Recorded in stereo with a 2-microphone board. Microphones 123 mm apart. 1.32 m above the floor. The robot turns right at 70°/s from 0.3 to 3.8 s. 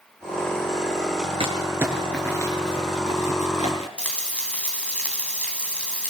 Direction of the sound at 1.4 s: 45° right (ahead or behind).